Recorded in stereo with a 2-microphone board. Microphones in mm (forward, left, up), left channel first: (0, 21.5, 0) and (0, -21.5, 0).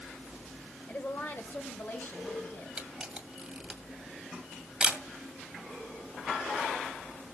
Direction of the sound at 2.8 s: 15° right (ahead or behind).